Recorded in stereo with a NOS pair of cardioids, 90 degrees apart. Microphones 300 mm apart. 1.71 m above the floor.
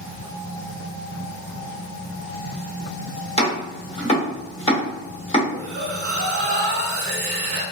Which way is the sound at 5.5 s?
45° right.